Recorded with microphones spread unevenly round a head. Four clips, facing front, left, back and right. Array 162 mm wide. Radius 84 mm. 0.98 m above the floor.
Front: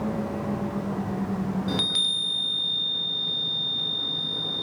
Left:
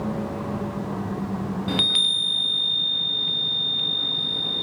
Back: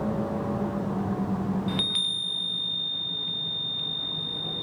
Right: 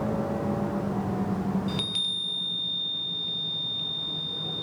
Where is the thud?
I don't hear a thud.